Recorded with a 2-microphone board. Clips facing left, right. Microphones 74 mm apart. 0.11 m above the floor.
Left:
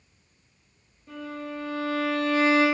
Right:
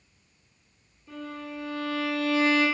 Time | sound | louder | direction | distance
1.1 | a violin | left 2 dB | 40° left (ahead or behind) | 1.2 m